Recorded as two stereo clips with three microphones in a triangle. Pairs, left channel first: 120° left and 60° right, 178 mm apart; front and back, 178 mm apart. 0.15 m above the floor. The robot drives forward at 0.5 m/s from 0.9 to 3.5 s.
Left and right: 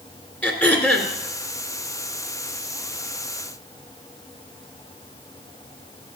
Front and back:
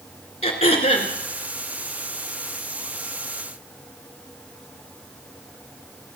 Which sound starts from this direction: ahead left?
Throat clearing, at 0.4 s.